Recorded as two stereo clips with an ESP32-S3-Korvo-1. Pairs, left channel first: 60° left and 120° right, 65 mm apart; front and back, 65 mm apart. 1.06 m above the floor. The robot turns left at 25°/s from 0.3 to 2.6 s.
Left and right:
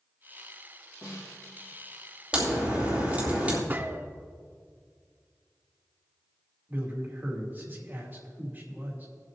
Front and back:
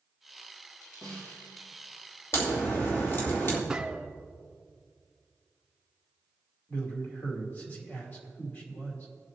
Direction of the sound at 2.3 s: 45° right.